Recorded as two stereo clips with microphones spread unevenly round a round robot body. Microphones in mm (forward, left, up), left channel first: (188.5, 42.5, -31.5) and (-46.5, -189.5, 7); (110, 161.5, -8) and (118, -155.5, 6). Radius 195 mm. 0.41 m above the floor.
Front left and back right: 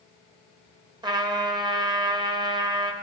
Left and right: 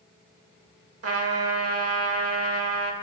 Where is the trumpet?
55° right, 1.5 m.